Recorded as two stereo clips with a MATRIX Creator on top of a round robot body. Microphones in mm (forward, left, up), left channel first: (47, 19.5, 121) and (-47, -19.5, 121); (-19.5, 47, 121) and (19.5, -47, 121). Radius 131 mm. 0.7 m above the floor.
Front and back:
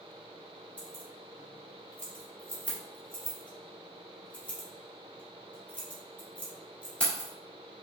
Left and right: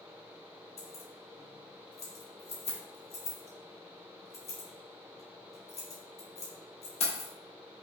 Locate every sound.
0.8 s keys jangling: 100° left, 1.5 m